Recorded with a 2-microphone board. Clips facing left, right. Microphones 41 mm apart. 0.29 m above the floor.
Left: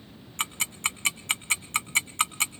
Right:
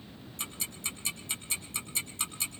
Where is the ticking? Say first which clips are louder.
Left 10 dB; 75° left (ahead or behind), 0.7 m.